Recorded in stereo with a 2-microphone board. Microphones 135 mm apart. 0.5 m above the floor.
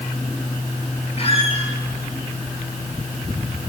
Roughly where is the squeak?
Left.